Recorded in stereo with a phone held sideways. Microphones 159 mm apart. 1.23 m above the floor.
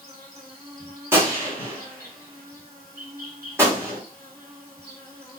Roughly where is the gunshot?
Centre.